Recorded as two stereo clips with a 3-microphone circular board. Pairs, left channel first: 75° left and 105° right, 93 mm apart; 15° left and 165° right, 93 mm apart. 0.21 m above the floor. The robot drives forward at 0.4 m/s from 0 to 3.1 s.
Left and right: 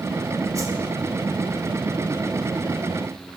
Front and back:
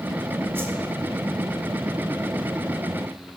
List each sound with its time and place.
0.6 s a whoosh: 120° right, 1.0 m; by 0.8 s 125° right, 1.0 m